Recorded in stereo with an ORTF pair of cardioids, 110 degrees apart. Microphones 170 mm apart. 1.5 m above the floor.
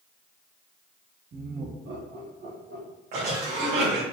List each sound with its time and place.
1.3 s laughter: 50° right, 1.5 m; by 2.9 s 75° right, 2.5 m
3.1 s a cough: 65° right, 3 m